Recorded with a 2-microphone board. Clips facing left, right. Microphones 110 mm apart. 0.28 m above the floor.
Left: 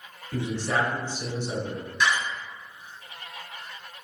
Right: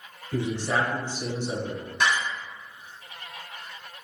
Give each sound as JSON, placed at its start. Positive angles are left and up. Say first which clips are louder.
{"t": 0.3, "sound": "a man speaking", "louder": "right 1 dB", "side_deg": -20, "distance_m": 1.2}
{"t": 2.0, "sound": "a door slam", "louder": "even", "side_deg": -55, "distance_m": 1.1}